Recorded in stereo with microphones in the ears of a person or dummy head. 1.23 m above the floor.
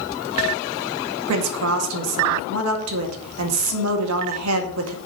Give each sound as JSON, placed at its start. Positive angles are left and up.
{"t": 1.3, "sound": "a woman speaking", "side_deg": -75, "distance_m": 2.0}